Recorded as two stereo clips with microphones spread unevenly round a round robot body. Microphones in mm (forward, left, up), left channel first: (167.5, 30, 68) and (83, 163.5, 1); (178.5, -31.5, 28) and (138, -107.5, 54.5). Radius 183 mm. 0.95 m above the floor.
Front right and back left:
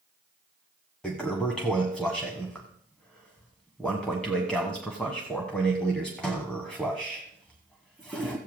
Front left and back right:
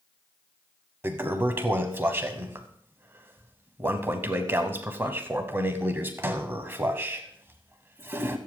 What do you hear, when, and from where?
1.0 s a toilet flushing: 110° right, 1.0 m